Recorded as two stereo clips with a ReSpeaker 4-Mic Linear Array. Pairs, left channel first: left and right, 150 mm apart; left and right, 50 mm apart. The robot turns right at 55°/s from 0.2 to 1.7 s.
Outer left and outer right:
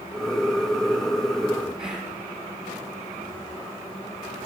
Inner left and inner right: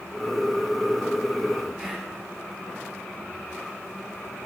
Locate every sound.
1.8 s whispering: 5° right (ahead or behind), 1.3 m